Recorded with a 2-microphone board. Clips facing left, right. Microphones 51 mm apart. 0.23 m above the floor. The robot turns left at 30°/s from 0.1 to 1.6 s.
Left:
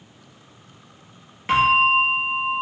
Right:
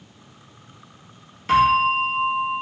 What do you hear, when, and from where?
1.5 s a bell: 30° left (ahead or behind), 1.4 m; by 2.6 s 35° left (ahead or behind), 1.4 m